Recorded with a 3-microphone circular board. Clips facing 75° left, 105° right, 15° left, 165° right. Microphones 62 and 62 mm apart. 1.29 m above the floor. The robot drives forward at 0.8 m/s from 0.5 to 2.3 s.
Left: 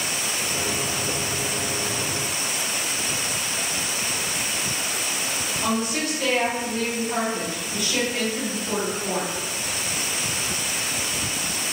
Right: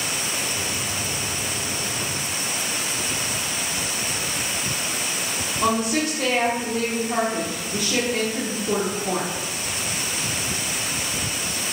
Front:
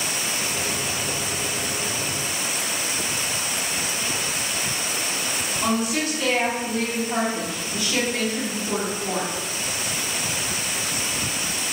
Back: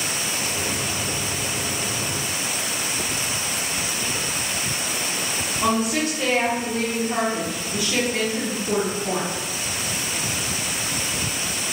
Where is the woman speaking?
105° right, 0.9 m.